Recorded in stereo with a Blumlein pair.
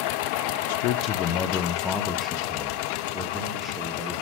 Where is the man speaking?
50° left, 0.8 m; by 4.1 s straight ahead, 3 m.